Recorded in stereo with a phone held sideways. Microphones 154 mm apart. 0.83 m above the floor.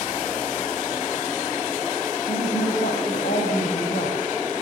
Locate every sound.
2.3 s a woman speaking: 75° left (ahead or behind), 5.5 m